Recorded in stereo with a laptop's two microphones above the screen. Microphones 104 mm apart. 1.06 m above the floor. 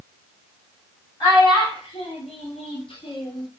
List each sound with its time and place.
1.2 s a child speaking: 40° left (ahead or behind), 1.0 m; by 3.5 s 45° left (ahead or behind), 0.9 m